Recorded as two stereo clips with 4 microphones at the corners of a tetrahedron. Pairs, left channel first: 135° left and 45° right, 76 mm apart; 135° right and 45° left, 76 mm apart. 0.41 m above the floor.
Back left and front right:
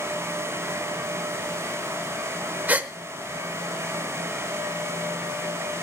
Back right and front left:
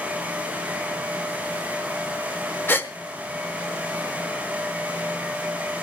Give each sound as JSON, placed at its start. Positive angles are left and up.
{"t": 2.7, "sound": "a gasp", "azimuth_deg": -95, "distance_m": 1.0}